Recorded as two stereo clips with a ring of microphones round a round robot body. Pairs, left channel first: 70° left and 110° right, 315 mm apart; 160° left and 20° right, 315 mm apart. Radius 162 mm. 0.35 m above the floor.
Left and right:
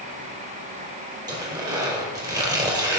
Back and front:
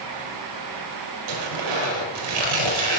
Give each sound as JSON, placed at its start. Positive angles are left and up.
{"t": 1.3, "sound": "tearing paper", "azimuth_deg": -35, "distance_m": 4.5}